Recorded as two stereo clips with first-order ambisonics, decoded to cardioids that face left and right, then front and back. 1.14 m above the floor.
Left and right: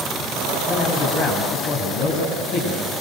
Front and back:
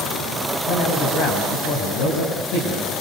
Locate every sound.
0.7 s a man speaking: 25° left, 8 m